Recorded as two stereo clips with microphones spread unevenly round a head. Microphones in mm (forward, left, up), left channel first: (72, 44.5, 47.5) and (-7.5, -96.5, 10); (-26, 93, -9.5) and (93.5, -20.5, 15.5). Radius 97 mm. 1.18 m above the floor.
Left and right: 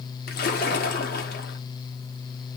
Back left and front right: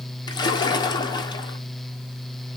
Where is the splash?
70° left, 1.2 m.